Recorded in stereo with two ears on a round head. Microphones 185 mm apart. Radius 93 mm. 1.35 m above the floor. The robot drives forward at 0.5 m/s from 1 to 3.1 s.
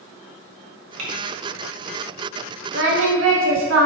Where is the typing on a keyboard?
85° right, 2 m.